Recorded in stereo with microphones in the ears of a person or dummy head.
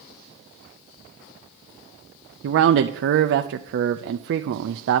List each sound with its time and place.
2.4 s a man speaking: 60° right (ahead or behind), 0.5 m